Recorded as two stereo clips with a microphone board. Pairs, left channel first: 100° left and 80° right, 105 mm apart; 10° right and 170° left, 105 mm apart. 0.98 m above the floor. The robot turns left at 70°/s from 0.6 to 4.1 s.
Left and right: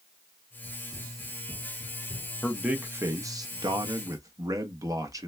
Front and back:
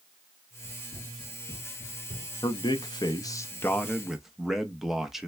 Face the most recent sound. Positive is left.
turn(degrees=-105)